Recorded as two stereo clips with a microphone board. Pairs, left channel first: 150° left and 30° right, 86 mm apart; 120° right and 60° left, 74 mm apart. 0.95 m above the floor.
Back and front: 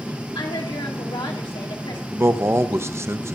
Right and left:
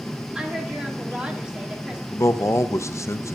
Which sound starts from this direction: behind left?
A woman speaking, at 0.3 s.